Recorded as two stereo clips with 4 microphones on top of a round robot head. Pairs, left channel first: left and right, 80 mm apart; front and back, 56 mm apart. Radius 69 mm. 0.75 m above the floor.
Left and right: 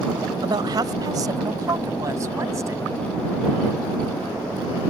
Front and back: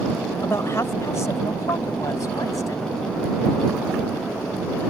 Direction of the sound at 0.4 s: 55° right.